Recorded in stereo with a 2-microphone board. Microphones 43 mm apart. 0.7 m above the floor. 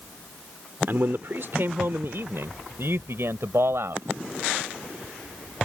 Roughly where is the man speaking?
Right.